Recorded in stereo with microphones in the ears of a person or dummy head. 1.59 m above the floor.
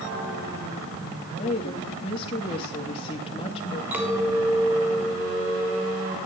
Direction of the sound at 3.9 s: 15° right (ahead or behind).